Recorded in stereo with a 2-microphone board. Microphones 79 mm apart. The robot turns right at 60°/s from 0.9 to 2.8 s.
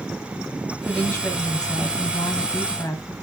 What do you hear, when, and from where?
0.8 s a woman speaking: 20° left, 1.1 m; by 3.1 s 135° left, 1.1 m